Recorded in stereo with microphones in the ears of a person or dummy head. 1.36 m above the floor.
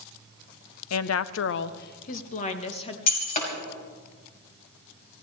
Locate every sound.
0.9 s a woman speaking: 70° left (ahead or behind), 0.6 m; by 3.0 s 35° left (ahead or behind), 1.3 m
3.1 s breaking glass: 45° left (ahead or behind), 4.5 m